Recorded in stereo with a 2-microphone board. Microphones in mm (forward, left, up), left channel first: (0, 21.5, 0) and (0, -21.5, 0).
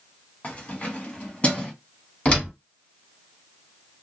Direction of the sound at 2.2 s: 25° left (ahead or behind).